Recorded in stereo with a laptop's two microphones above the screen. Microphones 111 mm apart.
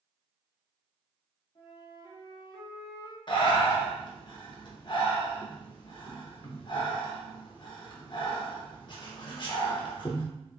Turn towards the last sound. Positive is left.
turn(degrees=45)  # may be behind; listen again after turning